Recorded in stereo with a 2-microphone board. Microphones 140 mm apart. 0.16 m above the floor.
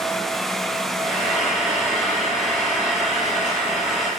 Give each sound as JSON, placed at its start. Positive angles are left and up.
{"t": 1.0, "sound": "frying", "side_deg": 65, "distance_m": 3.5}